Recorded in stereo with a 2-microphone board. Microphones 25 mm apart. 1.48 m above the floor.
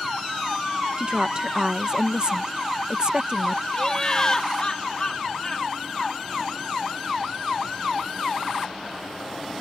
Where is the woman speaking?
35° right (ahead or behind).